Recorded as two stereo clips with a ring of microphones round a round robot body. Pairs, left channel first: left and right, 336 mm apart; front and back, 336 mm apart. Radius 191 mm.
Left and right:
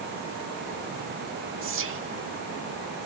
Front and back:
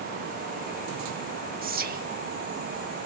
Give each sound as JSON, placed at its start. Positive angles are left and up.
{"t": 1.6, "sound": "whispering", "azimuth_deg": -125, "distance_m": 1.1}